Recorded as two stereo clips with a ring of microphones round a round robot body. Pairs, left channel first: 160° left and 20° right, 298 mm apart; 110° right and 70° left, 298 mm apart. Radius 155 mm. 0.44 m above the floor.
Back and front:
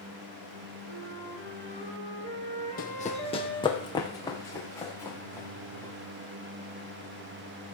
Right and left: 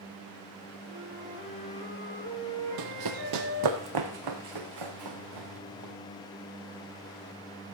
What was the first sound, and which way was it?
A flute, 80° left.